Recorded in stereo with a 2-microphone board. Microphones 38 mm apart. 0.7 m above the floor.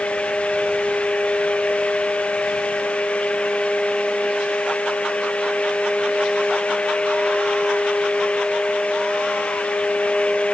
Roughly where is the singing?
No singing in this recording.